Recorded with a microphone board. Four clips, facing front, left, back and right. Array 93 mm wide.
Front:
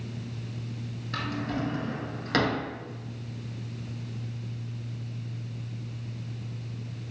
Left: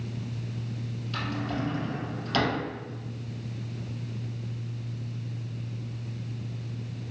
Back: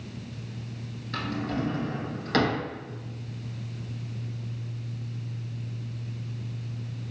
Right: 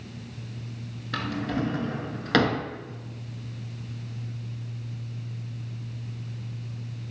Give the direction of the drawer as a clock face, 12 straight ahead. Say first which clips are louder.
Right 3 dB, back 1 dB; 3 o'clock.